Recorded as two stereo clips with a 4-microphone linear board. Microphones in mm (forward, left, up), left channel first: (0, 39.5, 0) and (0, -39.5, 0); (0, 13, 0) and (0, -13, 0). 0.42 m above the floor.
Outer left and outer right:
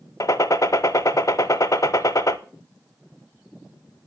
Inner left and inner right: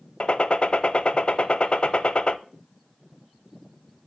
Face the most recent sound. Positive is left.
turn(degrees=45)  # may be behind; listen again after turning